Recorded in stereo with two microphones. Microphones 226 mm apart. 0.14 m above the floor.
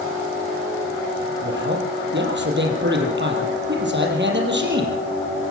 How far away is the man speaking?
About 5 m.